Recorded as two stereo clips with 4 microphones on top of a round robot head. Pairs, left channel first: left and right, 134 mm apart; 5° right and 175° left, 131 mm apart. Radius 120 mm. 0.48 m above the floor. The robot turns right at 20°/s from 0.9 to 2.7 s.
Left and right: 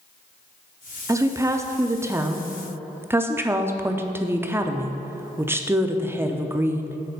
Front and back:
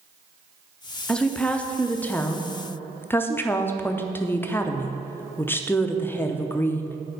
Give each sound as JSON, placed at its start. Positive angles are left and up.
{"t": 1.1, "sound": "a woman speaking", "azimuth_deg": -80, "distance_m": 0.7}